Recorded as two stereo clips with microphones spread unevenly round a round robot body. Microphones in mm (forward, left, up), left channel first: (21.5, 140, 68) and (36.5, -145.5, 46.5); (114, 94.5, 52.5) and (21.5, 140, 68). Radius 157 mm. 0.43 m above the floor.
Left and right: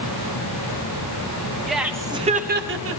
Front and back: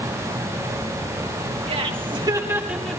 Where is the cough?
No cough in this recording.